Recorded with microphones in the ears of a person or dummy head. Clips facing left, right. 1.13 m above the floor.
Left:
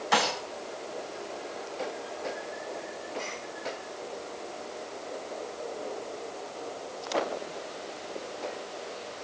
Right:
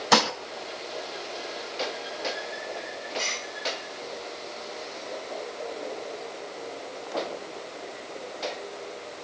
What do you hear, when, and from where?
0.1 s dishes clattering: 65° right (ahead or behind), 0.9 m